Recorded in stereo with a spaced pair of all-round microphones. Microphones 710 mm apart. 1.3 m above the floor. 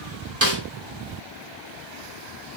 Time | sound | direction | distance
0.4 | a snare drum | 20° right (ahead or behind) | 0.7 m